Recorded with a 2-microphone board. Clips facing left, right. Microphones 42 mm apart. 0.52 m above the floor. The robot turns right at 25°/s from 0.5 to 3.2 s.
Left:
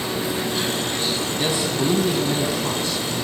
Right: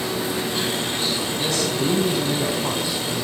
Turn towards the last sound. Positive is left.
turn(degrees=-160)